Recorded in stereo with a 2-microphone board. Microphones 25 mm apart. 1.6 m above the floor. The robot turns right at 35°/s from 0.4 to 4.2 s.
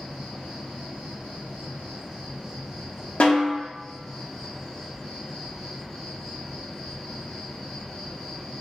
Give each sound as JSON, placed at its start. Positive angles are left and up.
{"t": 0.0, "sound": "an insect", "azimuth_deg": -115, "distance_m": 1.2}
{"t": 3.2, "sound": "a snare drum", "side_deg": 60, "distance_m": 0.6}